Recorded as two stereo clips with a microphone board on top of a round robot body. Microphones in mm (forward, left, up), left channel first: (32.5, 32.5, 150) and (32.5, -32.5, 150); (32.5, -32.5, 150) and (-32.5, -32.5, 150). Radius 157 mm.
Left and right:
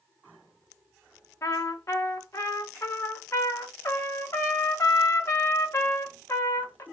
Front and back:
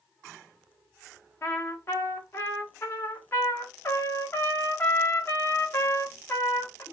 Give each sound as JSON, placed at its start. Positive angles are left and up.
{"t": 1.4, "sound": "a trumpet", "azimuth_deg": 50, "distance_m": 1.3}